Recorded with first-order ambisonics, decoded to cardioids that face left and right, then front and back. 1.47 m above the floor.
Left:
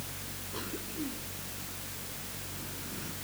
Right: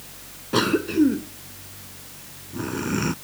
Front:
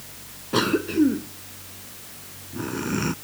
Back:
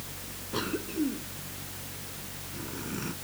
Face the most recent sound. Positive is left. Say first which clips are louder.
# right 20 dB, front 11 dB
turn(degrees=-55)